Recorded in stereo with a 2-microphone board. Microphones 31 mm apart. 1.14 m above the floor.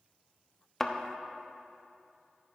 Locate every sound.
0.8 s a thud: 15° left (ahead or behind), 0.8 m